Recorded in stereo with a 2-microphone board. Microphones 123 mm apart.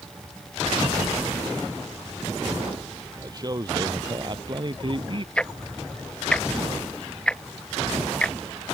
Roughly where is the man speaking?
Right.